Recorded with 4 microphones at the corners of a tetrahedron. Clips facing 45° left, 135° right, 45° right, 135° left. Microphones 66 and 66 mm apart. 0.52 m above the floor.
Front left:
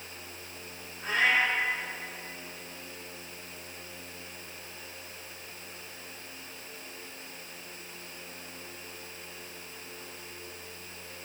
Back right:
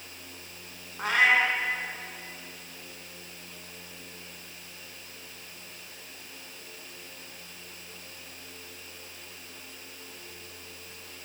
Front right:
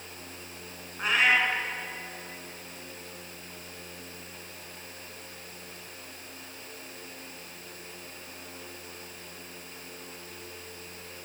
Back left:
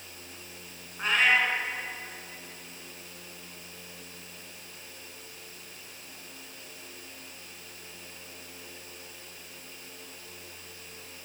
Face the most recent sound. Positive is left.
turn(degrees=-130)